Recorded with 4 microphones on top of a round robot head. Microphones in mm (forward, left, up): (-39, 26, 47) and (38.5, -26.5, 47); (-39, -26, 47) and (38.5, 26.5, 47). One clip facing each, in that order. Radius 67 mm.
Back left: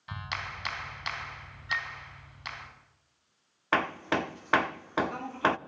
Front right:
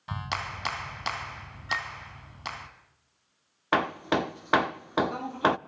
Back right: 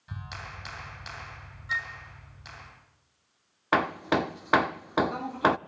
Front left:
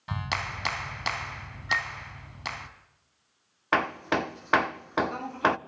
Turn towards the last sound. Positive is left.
turn(degrees=-75)